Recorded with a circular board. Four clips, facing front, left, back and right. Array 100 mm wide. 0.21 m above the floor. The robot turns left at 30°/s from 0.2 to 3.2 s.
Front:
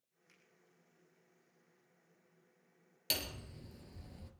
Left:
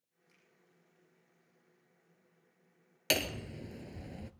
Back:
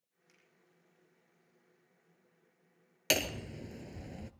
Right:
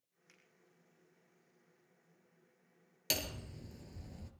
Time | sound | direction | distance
0.3 | a finger snap | 85° right | 8 m
3.1 | hammering | 145° left | 1.0 m